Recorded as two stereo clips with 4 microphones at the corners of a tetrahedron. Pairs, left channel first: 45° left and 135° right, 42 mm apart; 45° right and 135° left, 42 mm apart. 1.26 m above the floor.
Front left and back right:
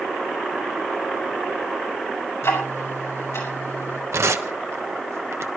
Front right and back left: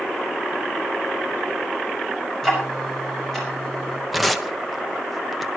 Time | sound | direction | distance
2.4 | ticking | 35° left | 6 m
4.1 | tearing paper | 135° right | 1.0 m